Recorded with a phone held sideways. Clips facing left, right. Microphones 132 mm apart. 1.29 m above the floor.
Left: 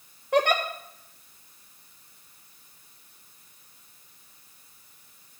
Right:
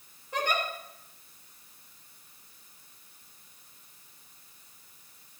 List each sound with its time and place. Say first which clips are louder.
0.3 s a giggle: left 8 dB; 70° left (ahead or behind), 1.3 m